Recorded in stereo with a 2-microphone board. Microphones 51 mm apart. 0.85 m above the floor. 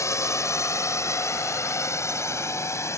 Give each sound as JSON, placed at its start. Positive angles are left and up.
{"t": 0.0, "sound": "a drone", "side_deg": 65}